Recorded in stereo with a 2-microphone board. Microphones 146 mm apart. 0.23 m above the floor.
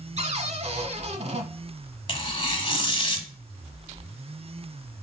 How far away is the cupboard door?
About 0.9 m.